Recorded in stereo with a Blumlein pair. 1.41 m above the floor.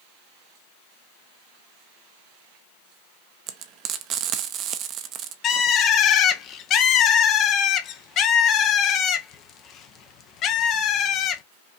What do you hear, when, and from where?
3.5 s frying: 35° right, 0.6 m
5.4 s a bird: 30° left, 0.7 m